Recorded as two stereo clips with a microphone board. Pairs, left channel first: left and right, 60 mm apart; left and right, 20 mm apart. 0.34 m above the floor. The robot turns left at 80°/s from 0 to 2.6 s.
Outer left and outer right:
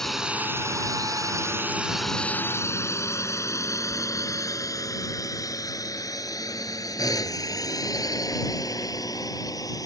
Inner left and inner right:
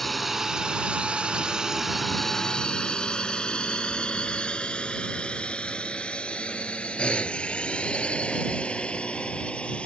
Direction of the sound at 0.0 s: 10° left (ahead or behind).